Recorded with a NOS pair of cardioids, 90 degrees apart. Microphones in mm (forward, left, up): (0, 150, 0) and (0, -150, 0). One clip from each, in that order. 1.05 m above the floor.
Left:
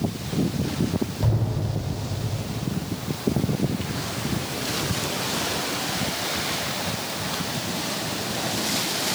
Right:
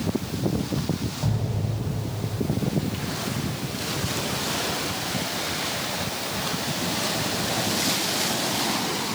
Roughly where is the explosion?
Ahead left.